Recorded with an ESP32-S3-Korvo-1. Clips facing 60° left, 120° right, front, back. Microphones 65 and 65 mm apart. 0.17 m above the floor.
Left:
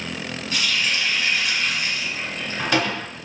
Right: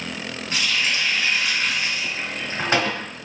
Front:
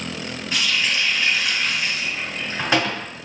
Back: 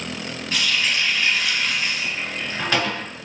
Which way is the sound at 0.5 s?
65° right.